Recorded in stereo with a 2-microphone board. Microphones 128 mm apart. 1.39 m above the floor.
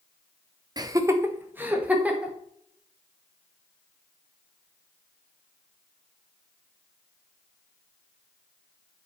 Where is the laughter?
35° right (ahead or behind), 0.9 m; by 2.3 s 10° right (ahead or behind), 2 m.